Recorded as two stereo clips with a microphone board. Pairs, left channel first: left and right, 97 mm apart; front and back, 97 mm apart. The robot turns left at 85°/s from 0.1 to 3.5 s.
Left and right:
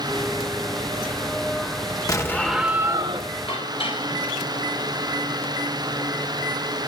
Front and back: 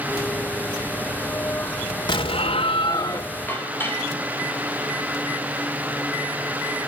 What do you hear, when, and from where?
2.1 s an explosion: 40° left, 2.5 m; by 3.3 s 65° right, 2.5 m
3.5 s dishes clattering: 70° left, 5.5 m